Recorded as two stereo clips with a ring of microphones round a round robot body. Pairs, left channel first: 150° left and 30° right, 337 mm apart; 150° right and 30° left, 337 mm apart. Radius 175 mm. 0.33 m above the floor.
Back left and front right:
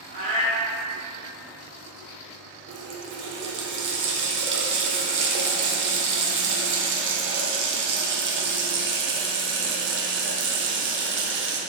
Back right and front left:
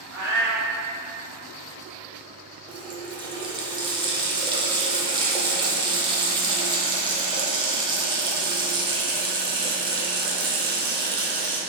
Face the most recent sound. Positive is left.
turn(degrees=-35)